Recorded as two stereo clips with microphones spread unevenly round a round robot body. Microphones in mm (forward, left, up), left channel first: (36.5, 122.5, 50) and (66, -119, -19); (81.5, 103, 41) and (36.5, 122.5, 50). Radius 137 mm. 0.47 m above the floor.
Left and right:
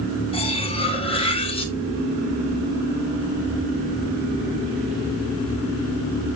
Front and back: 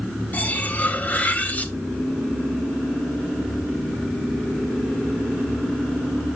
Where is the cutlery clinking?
25° left, 1.8 m.